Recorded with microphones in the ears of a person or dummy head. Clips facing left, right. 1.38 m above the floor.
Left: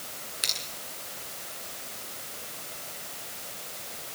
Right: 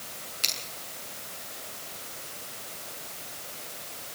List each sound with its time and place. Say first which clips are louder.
0.4 s scissors: right 1 dB; 25° left (ahead or behind), 8.5 m